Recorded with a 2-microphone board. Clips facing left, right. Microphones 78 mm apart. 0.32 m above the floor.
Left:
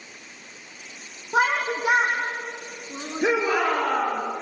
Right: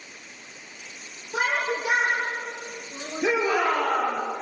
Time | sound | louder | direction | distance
1.3 | a shout | left 4 dB | 55° left (ahead or behind) | 3.5 m
3.2 | a shout | left 1 dB | 55° left (ahead or behind) | 6.5 m